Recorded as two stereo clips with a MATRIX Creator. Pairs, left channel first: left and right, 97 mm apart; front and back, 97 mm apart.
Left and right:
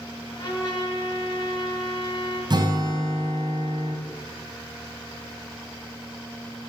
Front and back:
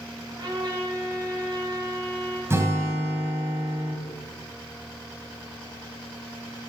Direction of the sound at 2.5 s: 120° right.